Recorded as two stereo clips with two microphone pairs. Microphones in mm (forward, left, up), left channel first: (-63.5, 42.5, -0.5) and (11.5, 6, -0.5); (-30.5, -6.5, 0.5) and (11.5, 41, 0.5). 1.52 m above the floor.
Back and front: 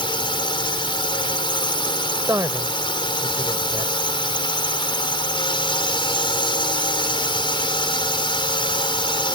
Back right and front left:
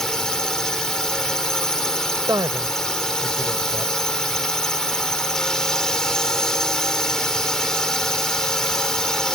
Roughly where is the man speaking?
Ahead left.